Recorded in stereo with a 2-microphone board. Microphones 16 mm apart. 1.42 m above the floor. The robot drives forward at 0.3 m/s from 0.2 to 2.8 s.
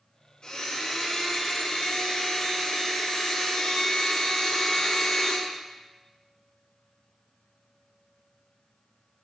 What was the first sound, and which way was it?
A blender, 55° left (ahead or behind).